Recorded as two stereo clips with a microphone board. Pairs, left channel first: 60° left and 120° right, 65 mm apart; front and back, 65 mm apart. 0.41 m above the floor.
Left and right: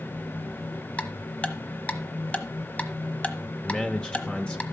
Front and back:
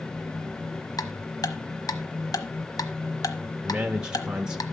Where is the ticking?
10° right, 1.0 m.